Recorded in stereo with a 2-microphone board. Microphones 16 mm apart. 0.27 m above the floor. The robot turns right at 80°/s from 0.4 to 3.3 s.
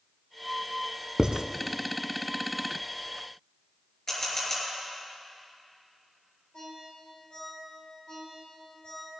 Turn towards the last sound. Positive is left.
turn(degrees=85)